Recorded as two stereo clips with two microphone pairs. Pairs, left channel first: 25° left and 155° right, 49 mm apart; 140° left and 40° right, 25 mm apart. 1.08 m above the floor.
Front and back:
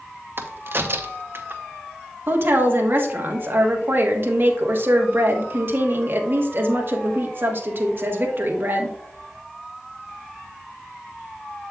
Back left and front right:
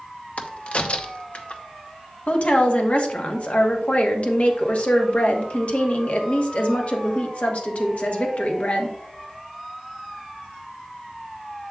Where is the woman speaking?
165° left, 1.3 m.